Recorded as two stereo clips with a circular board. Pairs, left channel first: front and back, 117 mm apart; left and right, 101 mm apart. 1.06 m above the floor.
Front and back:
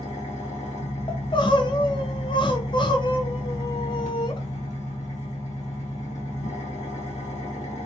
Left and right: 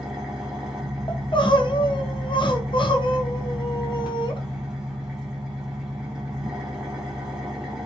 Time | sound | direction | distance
0.0 | an engine running | 10° right | 1.1 m
1.1 | crying | 50° left | 0.5 m